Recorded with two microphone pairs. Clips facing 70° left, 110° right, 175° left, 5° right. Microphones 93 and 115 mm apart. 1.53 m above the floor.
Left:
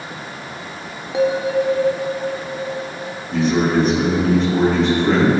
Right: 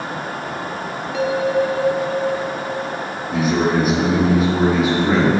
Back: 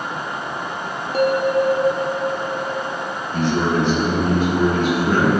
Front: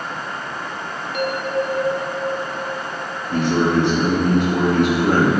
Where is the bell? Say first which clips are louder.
Left 1 dB, back 5 dB; 135° left, 1.1 m.